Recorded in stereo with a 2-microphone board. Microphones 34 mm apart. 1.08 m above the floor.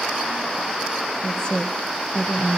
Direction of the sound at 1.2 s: 20° left (ahead or behind).